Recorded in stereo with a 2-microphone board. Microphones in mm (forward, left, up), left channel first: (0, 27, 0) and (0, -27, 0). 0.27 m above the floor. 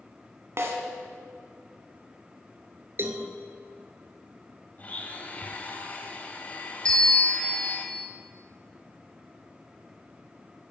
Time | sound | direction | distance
0.6 | a snare drum | 55° right (ahead or behind) | 1.9 m
3.0 | a cowbell | 45° right (ahead or behind) | 1.2 m
4.8 | a blender | 35° left (ahead or behind) | 1.6 m
6.8 | a bell | 20° left (ahead or behind) | 1.2 m